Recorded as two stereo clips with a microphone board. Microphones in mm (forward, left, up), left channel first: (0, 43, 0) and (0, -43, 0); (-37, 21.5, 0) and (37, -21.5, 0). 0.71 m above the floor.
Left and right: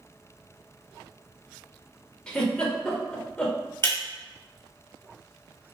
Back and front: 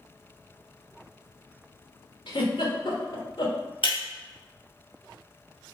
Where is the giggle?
170° left, 1.1 m.